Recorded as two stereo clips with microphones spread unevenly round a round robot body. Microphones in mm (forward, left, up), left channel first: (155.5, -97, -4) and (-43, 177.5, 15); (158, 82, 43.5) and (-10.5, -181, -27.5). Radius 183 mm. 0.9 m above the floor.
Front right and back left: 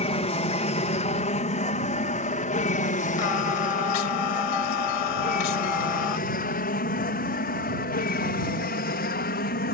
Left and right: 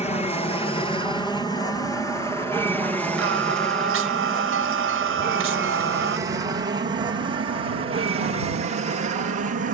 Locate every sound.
0.0 s an aircraft: 15° right; by 9.7 s 100° right
3.2 s singing: 70° right